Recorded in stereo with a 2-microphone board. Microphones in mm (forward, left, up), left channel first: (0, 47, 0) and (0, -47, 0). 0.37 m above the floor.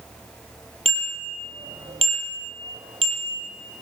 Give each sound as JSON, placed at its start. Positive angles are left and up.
{"t": 0.8, "sound": "a bicycle bell", "side_deg": -80, "distance_m": 7.0}